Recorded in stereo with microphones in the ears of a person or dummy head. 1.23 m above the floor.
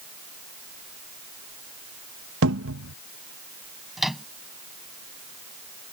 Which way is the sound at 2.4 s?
75° right (ahead or behind).